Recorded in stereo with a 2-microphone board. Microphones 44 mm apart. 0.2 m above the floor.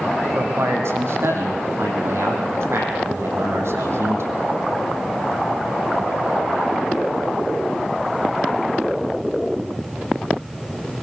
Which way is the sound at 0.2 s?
80° right.